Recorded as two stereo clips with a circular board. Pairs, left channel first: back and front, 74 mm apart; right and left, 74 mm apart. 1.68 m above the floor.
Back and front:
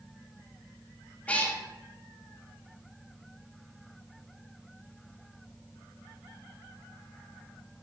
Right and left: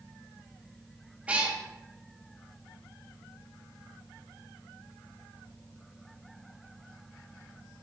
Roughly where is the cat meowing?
Behind left.